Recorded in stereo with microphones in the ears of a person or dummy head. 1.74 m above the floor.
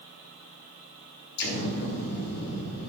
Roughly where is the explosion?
Left.